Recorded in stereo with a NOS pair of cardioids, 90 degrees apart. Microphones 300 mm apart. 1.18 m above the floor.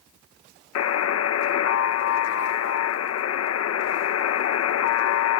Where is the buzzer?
55° left.